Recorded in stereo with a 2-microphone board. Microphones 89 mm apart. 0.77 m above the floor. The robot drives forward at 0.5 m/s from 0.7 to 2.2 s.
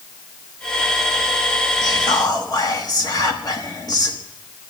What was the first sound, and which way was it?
Whispering, 50° left (ahead or behind).